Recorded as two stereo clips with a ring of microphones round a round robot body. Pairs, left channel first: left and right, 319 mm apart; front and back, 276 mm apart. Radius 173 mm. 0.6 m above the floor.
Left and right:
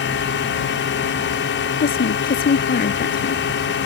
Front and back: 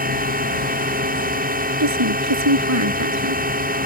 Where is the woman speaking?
155° left.